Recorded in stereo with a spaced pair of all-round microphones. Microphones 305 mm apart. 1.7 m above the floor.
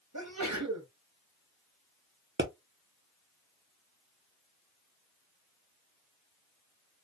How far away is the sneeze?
About 1.3 m.